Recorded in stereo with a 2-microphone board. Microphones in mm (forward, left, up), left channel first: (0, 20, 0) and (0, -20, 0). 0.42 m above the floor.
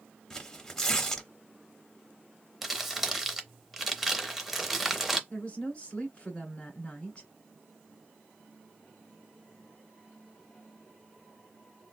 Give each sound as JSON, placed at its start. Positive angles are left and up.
{"t": 0.3, "sound": "tearing paper", "side_deg": 10, "distance_m": 0.6}
{"t": 2.6, "sound": "crumpling", "side_deg": -5, "distance_m": 0.6}
{"t": 5.3, "sound": "a woman speaking", "side_deg": 25, "distance_m": 1.3}